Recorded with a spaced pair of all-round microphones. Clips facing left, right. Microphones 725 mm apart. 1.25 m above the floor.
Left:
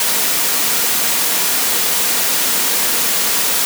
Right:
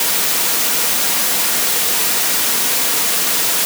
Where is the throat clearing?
No throat clearing in this recording.